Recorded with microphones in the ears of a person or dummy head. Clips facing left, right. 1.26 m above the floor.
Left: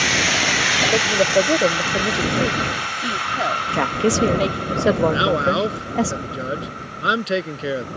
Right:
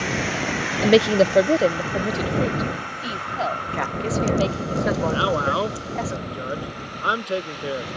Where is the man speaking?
20° left (ahead or behind).